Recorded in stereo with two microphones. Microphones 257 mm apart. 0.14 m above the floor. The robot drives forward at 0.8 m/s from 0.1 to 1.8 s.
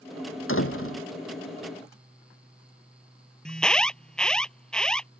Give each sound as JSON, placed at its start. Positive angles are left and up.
{"t": 0.5, "sound": "a door slam", "side_deg": 55}
{"t": 3.5, "sound": "an alarm", "side_deg": 5}